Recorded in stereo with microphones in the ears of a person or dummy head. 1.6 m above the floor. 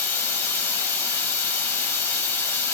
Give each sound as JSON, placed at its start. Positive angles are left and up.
{"t": 0.0, "sound": "running water", "side_deg": 10, "distance_m": 1.5}